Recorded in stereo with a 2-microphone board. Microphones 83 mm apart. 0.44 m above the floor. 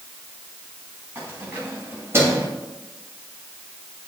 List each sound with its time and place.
1.1 s keys jangling: 25° right (ahead or behind), 3.5 m; by 2.5 s 35° right (ahead or behind), 1.4 m